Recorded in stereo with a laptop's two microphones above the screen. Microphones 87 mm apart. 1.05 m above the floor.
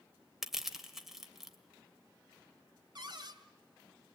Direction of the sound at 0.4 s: 5° right (ahead or behind).